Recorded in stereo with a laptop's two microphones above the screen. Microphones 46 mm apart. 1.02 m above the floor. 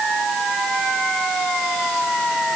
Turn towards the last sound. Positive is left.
No sound to turn to.